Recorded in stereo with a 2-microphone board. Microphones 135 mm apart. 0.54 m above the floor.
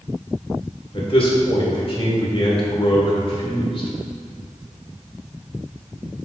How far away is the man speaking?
About 1.7 m.